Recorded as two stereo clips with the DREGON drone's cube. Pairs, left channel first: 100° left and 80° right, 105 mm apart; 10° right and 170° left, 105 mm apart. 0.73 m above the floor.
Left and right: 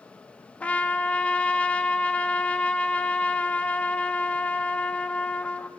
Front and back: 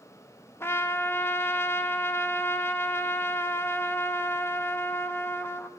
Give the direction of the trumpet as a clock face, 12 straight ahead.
11 o'clock.